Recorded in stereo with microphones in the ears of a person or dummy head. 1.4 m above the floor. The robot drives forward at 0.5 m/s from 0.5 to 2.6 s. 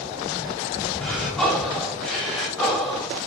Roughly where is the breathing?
Centre.